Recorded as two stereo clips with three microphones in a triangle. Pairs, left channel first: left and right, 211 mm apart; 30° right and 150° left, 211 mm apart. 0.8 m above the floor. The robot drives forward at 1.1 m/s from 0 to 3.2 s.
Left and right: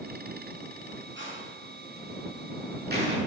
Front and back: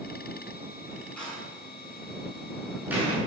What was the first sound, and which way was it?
A door slam, 115° right.